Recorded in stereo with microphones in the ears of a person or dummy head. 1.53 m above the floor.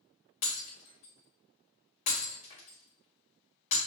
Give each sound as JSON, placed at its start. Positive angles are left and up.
{"t": 0.4, "sound": "breaking glass", "side_deg": 35, "distance_m": 1.6}